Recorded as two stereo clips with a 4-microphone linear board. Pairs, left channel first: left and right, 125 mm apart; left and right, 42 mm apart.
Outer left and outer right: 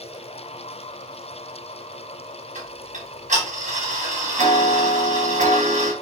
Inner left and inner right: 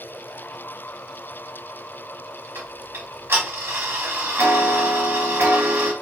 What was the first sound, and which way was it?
Ticking, 80° right.